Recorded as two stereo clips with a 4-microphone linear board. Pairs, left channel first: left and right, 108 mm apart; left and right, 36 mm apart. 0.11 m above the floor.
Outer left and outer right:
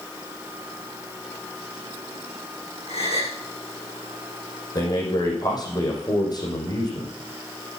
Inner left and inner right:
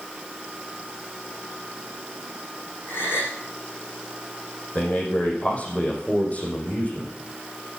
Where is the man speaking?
40° left (ahead or behind), 6 m.